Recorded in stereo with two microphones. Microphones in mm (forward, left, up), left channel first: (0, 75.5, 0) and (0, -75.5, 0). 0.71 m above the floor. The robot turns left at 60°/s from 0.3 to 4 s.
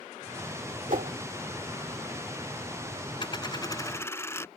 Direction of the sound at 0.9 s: 70° right (ahead or behind).